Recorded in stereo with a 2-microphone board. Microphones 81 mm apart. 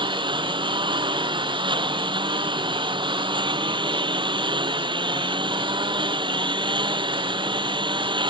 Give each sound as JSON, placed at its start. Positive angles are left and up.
{"t": 0.0, "sound": "a lawn mower", "side_deg": -80}